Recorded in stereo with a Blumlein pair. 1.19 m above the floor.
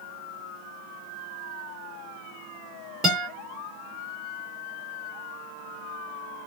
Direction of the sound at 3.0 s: 20° right.